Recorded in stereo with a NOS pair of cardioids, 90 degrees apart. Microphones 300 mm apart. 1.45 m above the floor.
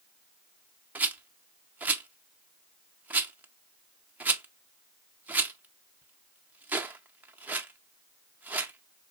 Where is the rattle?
5° right, 0.5 m.